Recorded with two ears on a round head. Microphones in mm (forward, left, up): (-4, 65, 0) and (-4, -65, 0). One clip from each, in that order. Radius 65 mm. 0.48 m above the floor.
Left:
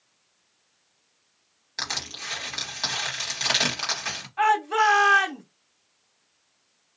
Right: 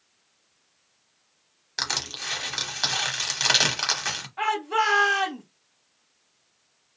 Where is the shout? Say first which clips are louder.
Left 4 dB; 15° left (ahead or behind), 1.1 m.